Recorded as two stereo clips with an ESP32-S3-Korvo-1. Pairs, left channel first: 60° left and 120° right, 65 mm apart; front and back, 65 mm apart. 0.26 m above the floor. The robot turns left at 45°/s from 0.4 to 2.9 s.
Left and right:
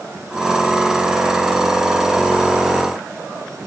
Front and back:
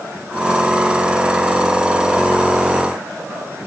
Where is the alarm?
No alarm in this recording.